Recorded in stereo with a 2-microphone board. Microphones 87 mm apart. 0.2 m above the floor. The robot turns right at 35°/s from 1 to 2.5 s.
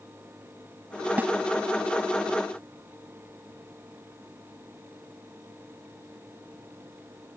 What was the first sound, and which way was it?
A snare drum, 20° right (ahead or behind).